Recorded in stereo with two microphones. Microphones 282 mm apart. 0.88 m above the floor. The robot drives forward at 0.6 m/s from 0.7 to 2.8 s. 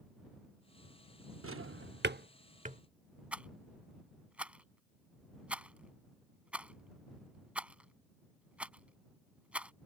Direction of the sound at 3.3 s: 5° right (ahead or behind).